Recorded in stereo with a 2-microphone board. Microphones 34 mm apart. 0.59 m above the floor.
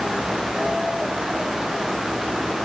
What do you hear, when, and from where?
Only background noise.